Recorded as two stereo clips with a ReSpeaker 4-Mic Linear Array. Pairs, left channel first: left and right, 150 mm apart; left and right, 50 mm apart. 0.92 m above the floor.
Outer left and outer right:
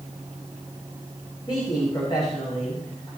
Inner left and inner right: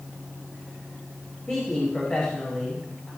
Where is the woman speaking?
30° left (ahead or behind), 5 m.